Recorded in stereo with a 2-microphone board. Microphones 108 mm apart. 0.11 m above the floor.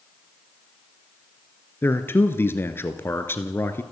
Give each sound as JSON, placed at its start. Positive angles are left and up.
{"t": 1.8, "sound": "a man speaking", "side_deg": 20, "distance_m": 1.8}